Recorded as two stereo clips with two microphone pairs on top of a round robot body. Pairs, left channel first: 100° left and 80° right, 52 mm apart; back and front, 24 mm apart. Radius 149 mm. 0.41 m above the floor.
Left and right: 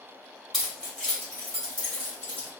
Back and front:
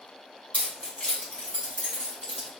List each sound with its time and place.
0.5 s keys jangling: 175° right, 1.2 m; by 2.5 s 150° left, 2.5 m